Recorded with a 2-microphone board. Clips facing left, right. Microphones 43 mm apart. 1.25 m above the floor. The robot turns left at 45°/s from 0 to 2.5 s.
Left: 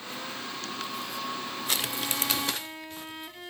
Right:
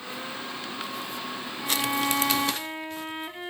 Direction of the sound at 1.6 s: 110° right.